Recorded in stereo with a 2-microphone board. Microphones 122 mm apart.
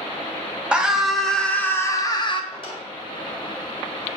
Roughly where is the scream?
Centre.